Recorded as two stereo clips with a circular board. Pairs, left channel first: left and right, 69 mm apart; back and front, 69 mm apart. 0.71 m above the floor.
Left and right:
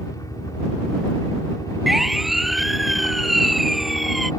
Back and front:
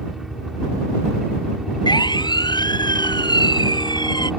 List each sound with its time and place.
0.0 s a helicopter: 85° left
1.9 s a siren: straight behind